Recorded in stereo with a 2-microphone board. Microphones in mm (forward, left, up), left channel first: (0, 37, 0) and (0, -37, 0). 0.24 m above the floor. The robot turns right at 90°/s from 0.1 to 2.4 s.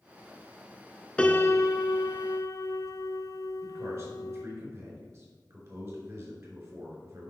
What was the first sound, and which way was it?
A piano, 15° left.